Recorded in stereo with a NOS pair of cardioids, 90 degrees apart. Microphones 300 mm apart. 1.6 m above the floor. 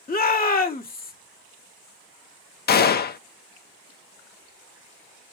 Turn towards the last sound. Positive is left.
turn(degrees=35)